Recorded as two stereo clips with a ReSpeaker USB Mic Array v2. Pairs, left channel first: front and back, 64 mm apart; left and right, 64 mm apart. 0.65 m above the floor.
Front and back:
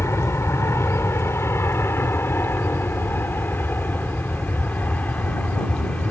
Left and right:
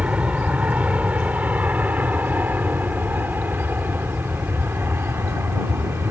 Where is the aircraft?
25° right; by 6.1 s 60° right.